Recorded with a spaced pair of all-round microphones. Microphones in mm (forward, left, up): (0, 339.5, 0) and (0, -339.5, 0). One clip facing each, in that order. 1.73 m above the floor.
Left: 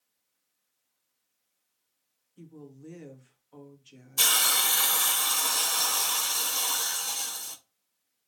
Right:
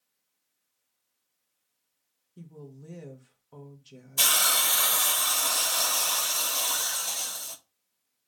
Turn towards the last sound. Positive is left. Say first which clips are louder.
# right 1 dB
turn(degrees=-15)  # may be behind; listen again after turning